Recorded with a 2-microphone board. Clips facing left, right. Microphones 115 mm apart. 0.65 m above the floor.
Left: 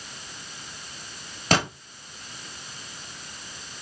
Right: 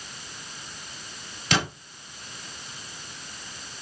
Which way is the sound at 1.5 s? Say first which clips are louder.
Left 3 dB; 40° left (ahead or behind).